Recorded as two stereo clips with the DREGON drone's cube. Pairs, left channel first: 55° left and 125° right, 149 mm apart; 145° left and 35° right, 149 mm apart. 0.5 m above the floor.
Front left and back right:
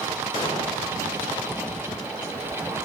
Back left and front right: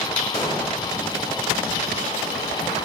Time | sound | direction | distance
0.3 | an explosion | 100° left | 2.5 m